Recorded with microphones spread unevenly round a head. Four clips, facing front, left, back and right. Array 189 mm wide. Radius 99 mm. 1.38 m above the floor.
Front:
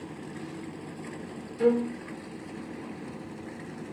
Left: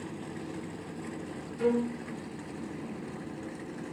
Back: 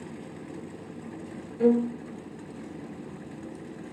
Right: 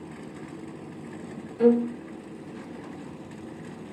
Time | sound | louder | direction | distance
1.6 | a violin | right 8 dB, back 2 dB | 125° right | 1.8 m